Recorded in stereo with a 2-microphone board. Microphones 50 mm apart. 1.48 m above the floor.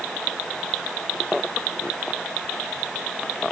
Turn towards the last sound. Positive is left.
No sound to turn to.